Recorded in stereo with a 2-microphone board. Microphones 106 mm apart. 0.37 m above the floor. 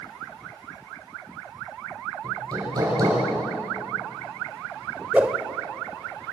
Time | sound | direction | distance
2.2 | hammering | 35° right (ahead or behind) | 7.5 m
5.1 | a whoosh | 15° right (ahead or behind) | 1.3 m